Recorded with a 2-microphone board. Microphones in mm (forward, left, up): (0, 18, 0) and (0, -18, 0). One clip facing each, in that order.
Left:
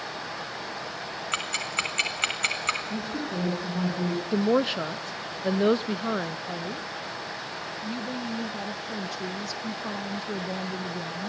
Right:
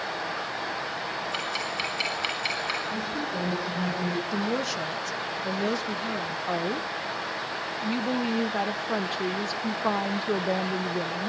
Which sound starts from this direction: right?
A woman speaking, at 6.5 s.